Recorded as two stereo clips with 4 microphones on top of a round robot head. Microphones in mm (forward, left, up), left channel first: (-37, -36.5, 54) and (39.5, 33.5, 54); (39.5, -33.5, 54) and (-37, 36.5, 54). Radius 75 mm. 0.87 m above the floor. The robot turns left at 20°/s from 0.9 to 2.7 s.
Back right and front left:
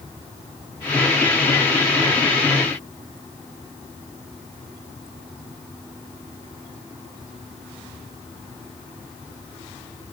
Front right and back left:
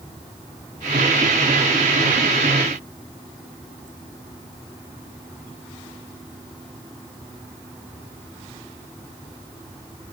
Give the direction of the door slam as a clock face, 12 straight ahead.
No door slam in this recording.